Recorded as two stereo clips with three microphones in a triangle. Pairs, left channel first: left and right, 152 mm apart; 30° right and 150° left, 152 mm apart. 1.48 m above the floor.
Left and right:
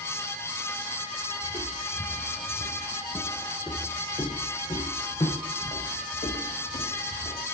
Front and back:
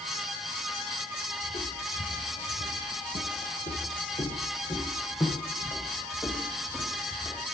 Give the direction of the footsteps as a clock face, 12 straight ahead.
12 o'clock.